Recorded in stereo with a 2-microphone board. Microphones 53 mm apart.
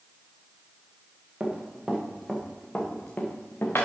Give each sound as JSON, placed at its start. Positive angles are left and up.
{"t": 1.4, "sound": "running footsteps", "side_deg": -15, "distance_m": 3.5}